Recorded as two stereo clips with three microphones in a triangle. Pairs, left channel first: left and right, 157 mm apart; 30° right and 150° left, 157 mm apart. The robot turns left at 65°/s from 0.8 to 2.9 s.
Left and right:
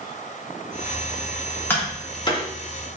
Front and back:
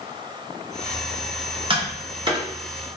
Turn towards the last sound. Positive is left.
turn(degrees=80)